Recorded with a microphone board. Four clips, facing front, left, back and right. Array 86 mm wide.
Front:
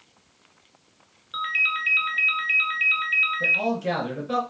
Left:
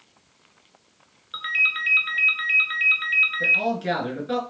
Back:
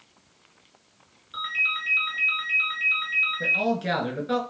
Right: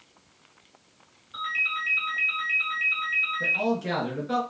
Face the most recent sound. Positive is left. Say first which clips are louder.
# left 1 dB, back 2 dB
turn(degrees=150)